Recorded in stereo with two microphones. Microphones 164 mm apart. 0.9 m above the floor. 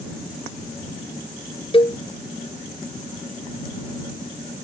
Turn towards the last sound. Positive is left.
turn(degrees=35)  # may be behind; listen again after turning